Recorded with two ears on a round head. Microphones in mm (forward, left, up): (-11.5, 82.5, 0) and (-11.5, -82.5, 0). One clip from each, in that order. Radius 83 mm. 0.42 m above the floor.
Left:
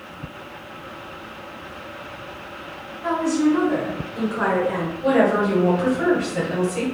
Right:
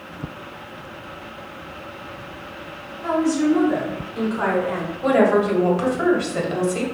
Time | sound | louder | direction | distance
3.0 | a woman speaking | right 1 dB | 20° right (ahead or behind) | 2 m
5.0 | a woman speaking | right 2 dB | 30° right (ahead or behind) | 1.6 m